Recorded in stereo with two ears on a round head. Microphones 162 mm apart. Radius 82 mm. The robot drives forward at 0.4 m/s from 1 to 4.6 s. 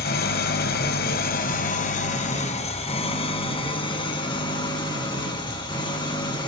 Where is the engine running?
55° left (ahead or behind), 1.2 m; by 6.5 s 25° left (ahead or behind), 2.5 m.